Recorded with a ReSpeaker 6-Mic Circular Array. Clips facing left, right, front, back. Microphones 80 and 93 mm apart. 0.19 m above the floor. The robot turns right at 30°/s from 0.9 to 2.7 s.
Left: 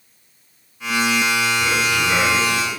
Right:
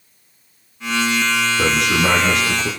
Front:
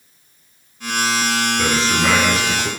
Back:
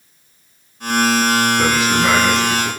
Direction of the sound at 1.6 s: 110° right.